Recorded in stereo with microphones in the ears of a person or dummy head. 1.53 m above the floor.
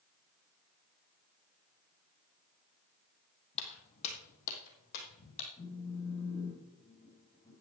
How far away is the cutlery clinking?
No cutlery clinking in this recording.